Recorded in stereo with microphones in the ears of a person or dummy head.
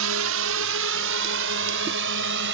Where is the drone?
70° right (ahead or behind); by 2.5 s 60° right (ahead or behind).